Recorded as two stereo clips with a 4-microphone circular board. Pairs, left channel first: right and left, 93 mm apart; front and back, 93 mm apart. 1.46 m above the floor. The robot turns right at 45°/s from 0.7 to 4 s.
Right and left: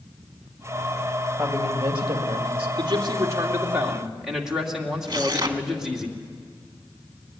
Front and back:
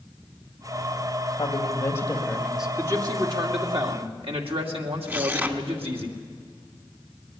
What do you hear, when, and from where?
1.4 s a woman speaking: 40° left, 2.0 m; by 2.7 s 95° left, 2.0 m
2.8 s a man speaking: 120° left, 2.5 m; by 6.1 s 175° left, 2.5 m
5.1 s tearing paper: 120° left, 1.2 m